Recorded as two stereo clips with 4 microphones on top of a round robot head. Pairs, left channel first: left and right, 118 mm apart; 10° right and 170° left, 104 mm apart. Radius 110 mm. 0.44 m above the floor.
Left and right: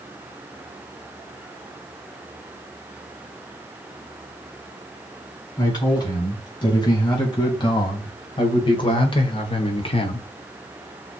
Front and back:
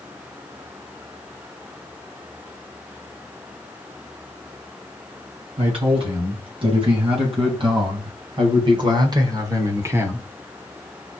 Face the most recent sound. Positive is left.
turn(degrees=100)